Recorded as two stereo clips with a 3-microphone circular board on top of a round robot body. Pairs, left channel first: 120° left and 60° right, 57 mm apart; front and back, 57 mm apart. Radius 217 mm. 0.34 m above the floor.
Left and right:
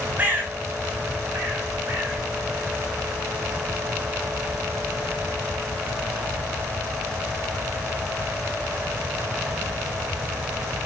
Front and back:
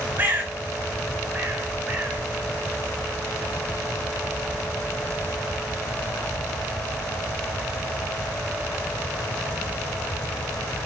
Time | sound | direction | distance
0.2 | a bird | 125° right | 3 m